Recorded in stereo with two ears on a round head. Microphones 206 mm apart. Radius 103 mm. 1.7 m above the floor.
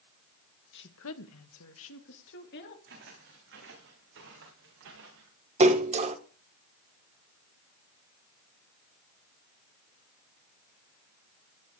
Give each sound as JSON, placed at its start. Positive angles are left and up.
{"t": 0.7, "sound": "a woman speaking", "side_deg": 50, "distance_m": 1.7}
{"t": 2.9, "sound": "footsteps", "side_deg": -55, "distance_m": 8.5}
{"t": 5.6, "sound": "a splash", "side_deg": -30, "distance_m": 1.5}